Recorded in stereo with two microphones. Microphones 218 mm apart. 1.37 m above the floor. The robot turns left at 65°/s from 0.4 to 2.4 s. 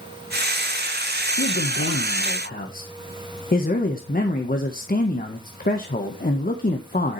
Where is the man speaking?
110° left, 1.3 m; by 7.2 s 45° left, 1.3 m.